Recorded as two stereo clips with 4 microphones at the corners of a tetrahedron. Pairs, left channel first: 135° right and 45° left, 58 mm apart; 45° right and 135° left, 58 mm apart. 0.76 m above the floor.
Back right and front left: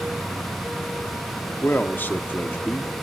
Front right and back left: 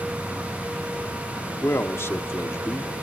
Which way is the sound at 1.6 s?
85° right.